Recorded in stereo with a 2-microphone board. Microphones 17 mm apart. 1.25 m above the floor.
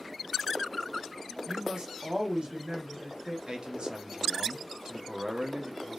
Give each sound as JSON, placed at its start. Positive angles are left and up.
{"t": 1.5, "sound": "a woman speaking", "side_deg": -65, "distance_m": 1.5}
{"t": 3.5, "sound": "a man speaking", "side_deg": -65, "distance_m": 0.9}